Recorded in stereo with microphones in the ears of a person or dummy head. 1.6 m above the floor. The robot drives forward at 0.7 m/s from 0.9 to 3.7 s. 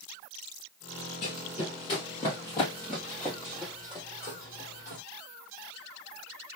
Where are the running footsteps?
30° left (ahead or behind), 2 m; by 5.0 s 15° right (ahead or behind), 2.5 m.